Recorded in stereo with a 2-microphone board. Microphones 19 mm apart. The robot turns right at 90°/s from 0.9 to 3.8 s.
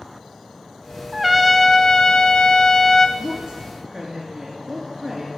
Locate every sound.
1.1 s a trumpet: 20° right, 0.7 m; by 3.1 s 155° left, 0.7 m
3.2 s a woman speaking: 90° right, 3 m; by 5.3 s 30° right, 3 m